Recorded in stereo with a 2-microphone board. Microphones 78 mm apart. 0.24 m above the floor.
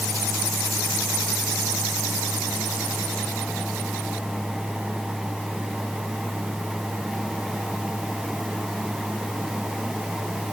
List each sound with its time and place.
Only background noise.